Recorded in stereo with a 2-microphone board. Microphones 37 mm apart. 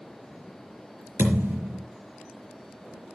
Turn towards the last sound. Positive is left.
turn(degrees=-75)  # may be behind; listen again after turning